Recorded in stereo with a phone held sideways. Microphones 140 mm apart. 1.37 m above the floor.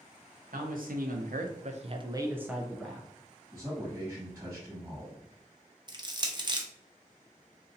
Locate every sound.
0.5 s a man speaking: 75° right (ahead or behind), 0.9 m; by 3.1 s 10° left (ahead or behind), 0.9 m
3.5 s a man speaking: 20° right (ahead or behind), 1.5 m
5.9 s crushing: 30° right (ahead or behind), 0.5 m